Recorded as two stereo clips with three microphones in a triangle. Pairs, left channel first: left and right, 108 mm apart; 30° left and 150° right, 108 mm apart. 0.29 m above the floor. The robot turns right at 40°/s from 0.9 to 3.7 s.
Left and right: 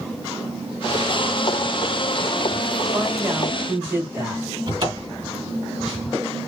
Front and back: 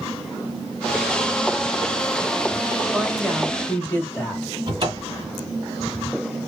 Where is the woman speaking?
70° right, 1.6 m; by 4.5 s 40° right, 1.6 m.